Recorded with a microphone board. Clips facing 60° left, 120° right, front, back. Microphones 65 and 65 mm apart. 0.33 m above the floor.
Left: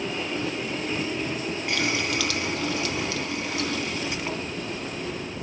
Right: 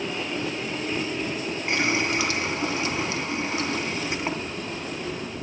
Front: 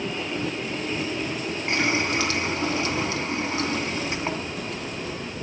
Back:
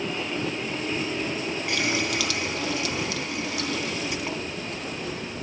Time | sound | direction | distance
1.7 | a running tap | 55° right | 2.5 m